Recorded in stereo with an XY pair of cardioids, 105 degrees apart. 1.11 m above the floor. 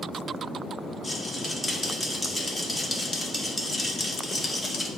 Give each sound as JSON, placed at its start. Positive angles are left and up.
{"t": 1.0, "sound": "a rattle", "azimuth_deg": 20, "distance_m": 1.1}